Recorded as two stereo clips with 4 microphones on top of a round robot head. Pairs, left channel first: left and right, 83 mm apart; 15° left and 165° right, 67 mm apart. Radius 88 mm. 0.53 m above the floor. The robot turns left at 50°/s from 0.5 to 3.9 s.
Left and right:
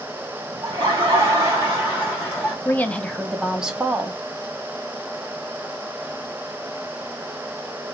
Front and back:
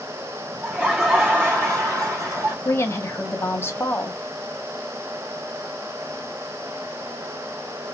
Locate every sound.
0.6 s laughter: 95° right, 1.5 m; by 2.5 s 170° left, 1.5 m
2.6 s a woman speaking: 40° left, 0.8 m; by 4.2 s 25° right, 0.8 m